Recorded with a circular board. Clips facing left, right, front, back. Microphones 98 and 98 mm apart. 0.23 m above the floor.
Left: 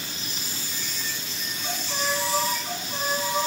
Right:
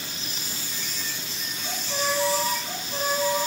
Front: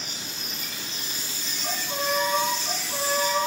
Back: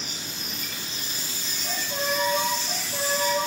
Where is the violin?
10° left, 1.9 m.